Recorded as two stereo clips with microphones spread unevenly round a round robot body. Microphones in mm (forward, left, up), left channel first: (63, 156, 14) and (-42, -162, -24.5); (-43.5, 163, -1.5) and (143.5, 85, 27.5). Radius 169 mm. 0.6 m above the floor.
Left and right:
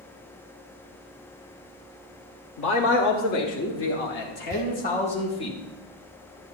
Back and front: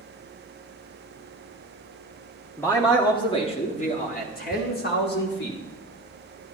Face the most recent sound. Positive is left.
turn(degrees=-130)